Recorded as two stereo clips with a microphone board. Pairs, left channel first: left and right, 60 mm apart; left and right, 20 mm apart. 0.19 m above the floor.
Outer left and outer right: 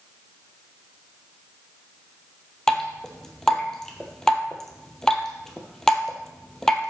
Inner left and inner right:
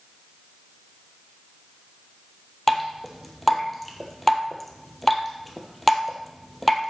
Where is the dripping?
10° left (ahead or behind), 1.5 m.